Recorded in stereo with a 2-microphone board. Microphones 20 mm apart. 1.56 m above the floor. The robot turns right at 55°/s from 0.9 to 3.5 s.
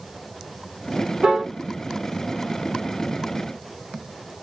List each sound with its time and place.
1.2 s a piano: 60° right (ahead or behind), 1.0 m; by 1.5 s 75° right (ahead or behind), 1.0 m